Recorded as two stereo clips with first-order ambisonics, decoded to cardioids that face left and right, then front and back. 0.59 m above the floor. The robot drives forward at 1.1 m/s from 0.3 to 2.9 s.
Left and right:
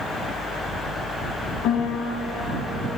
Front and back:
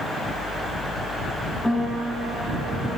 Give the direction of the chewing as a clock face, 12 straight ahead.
No chewing in this recording.